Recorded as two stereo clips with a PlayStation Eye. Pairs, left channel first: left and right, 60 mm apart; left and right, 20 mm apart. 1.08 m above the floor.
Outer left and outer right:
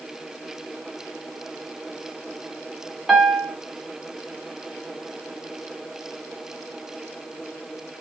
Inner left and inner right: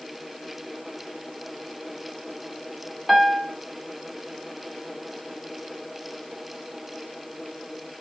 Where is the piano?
10° right (ahead or behind), 0.6 m.